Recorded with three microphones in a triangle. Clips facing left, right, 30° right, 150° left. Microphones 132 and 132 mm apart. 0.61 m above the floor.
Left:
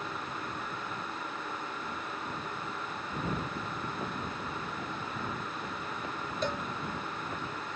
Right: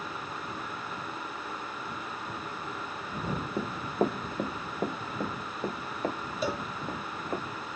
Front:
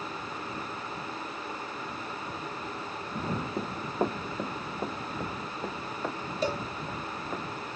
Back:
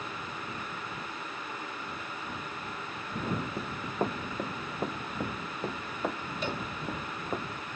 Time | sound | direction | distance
3.6 | running footsteps | 95° right | ?
6.4 | a cowbell | 10° right | ?